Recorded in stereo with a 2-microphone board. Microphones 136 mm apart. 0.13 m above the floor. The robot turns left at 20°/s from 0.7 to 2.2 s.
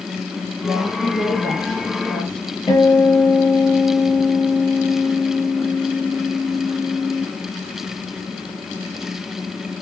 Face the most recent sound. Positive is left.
turn(degrees=30)  # may be behind; listen again after turning